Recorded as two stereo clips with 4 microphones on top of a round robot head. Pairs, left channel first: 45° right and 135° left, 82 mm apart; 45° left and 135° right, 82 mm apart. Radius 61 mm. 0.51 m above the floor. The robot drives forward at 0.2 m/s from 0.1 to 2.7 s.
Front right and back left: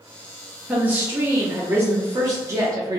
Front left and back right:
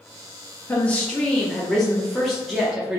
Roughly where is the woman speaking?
Left.